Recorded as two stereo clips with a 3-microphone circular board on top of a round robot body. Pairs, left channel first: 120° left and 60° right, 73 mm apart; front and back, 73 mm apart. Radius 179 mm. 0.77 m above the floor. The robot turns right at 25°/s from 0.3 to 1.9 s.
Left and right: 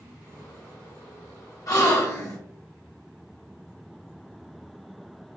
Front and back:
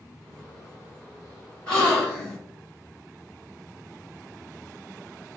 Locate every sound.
1.7 s a gasp: 75° left, 2.0 m; by 2.4 s 85° left, 2.0 m